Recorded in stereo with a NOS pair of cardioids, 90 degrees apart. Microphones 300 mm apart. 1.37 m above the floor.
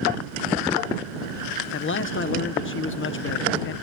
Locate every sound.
1.7 s a man speaking: 40° left